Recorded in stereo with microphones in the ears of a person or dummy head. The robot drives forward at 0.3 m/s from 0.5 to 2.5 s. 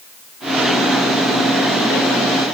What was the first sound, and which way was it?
Only background noise.